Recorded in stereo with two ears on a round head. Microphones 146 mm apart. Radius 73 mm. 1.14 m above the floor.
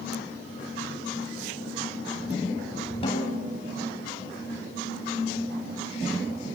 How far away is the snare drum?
About 7.5 m.